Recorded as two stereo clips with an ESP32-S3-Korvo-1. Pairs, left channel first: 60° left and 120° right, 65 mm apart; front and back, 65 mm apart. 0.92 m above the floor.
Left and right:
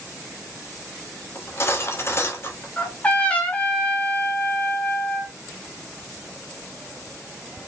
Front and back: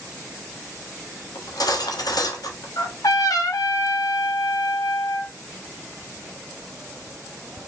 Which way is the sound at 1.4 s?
10° left.